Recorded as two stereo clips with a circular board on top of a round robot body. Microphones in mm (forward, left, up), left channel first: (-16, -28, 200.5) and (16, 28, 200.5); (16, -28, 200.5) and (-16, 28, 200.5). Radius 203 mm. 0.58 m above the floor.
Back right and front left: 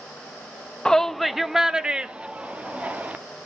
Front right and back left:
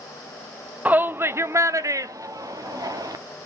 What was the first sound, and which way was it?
A shout, 170° left.